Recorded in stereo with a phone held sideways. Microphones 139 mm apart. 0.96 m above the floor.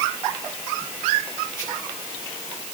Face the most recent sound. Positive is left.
No sound to turn to.